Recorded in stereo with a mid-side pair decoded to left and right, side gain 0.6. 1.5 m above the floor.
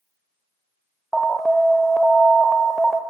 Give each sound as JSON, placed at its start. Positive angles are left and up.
{"t": 1.1, "sound": "an alarm", "azimuth_deg": -10, "distance_m": 0.6}